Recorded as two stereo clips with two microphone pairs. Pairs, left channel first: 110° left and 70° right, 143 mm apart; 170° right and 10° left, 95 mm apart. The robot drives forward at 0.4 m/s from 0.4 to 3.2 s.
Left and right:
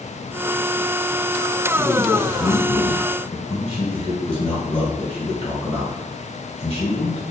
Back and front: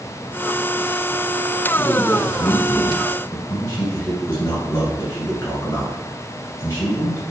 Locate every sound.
1.8 s a man speaking: 135° left, 1.9 m; by 7.2 s 150° left, 2 m